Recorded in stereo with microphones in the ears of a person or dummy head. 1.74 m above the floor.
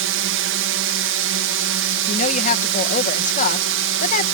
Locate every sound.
0.0 s a drone: 70° right (ahead or behind)
2.1 s a woman speaking: 45° left (ahead or behind)